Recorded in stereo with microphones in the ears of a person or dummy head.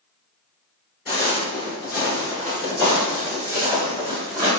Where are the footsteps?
25° left (ahead or behind), 1.9 m; by 4.5 s 30° right (ahead or behind), 1.9 m.